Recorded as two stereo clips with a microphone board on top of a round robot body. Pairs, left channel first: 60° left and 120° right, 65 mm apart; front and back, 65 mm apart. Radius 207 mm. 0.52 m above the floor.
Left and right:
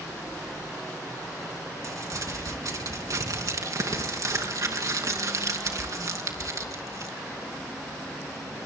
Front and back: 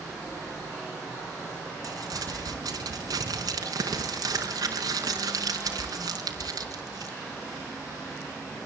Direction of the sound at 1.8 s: 155° right.